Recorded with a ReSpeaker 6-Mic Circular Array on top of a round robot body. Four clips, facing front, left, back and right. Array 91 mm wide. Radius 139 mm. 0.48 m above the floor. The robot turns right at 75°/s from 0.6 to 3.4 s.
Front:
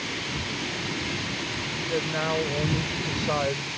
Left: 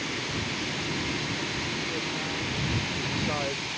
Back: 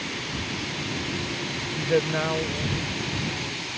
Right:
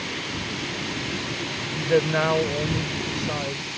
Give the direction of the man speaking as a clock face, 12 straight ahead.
4 o'clock.